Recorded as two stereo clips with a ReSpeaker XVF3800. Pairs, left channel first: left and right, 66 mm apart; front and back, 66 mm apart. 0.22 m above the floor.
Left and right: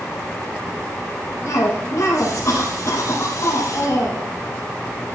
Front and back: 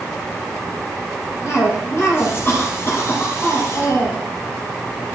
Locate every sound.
1.4 s a cough: 50° left, 6 m